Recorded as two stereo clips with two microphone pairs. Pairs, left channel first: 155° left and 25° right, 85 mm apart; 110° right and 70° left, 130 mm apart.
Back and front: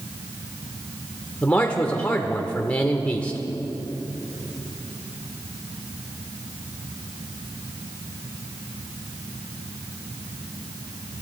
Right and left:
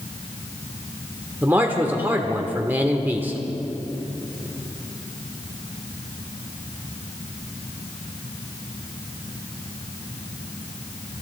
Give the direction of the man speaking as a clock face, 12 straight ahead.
8 o'clock.